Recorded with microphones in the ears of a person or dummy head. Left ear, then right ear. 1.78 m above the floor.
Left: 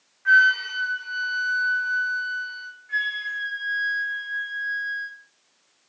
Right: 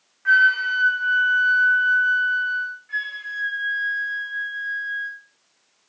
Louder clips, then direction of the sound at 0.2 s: Right 1 dB; 20° right (ahead or behind).